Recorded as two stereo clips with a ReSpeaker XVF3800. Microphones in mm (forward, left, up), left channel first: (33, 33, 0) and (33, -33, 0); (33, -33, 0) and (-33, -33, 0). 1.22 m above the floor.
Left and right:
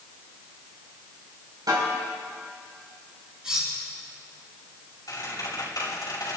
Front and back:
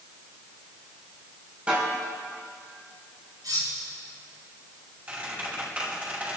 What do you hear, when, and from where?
1.7 s a snare drum: 110° right, 7 m
3.4 s cutlery clinking: 165° right, 7.5 m
5.1 s a squeak: 115° left, 5.5 m